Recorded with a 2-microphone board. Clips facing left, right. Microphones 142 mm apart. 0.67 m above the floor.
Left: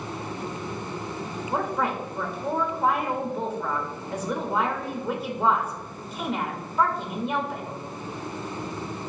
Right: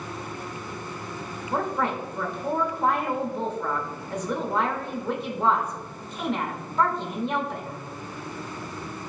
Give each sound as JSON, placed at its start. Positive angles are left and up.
{"t": 1.5, "sound": "a woman speaking", "side_deg": 0, "distance_m": 0.9}